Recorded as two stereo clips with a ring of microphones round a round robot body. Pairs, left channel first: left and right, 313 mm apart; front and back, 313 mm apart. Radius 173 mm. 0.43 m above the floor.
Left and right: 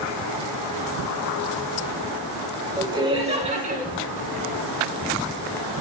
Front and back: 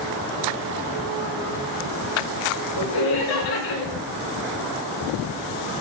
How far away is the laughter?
About 4 m.